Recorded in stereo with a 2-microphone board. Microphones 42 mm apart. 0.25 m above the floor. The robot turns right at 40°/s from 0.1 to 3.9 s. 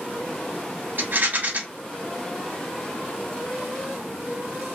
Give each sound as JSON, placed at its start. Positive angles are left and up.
{"t": 1.0, "sound": "a rattle", "side_deg": -50, "distance_m": 0.8}